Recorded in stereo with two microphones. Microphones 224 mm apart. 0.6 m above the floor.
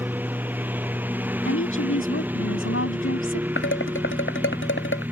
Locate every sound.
0.0 s a lawn mower: 10° right (ahead or behind)
1.4 s a woman speaking: 70° left (ahead or behind)
3.6 s dishes clattering: 60° left (ahead or behind)